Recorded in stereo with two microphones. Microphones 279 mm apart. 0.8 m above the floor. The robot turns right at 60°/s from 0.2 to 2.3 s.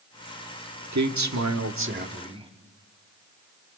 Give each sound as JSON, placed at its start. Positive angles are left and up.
{"t": 0.9, "sound": "a man speaking", "azimuth_deg": -100, "distance_m": 1.4}